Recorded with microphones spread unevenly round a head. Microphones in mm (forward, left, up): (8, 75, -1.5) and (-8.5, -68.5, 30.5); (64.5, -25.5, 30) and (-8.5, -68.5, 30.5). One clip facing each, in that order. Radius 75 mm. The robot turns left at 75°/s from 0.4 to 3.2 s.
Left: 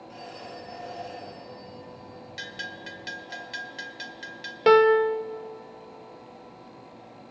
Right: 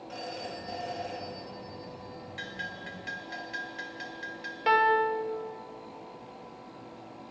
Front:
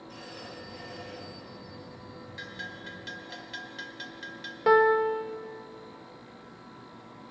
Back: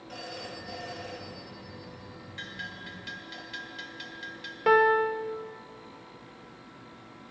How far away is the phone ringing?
About 7 m.